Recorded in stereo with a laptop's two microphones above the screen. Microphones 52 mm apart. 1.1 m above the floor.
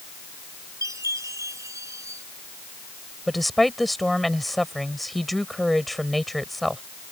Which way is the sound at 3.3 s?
Centre (ahead or behind).